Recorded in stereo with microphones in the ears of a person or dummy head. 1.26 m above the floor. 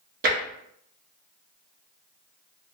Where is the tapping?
40° right (ahead or behind), 0.7 m.